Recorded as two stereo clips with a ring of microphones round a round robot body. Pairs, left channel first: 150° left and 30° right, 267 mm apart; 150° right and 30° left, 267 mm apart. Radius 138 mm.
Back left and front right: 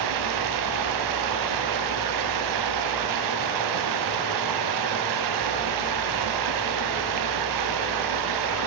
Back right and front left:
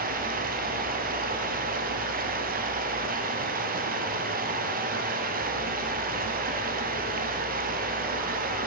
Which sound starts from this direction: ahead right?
Running water, at 0.0 s.